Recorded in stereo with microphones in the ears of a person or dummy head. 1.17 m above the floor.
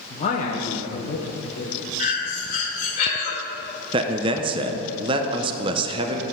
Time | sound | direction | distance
0.1 | a man speaking | 30° left (ahead or behind) | 0.8 m
2.0 | breathing | 45° left (ahead or behind) | 2 m
3.9 | a man speaking | 30° right (ahead or behind) | 0.6 m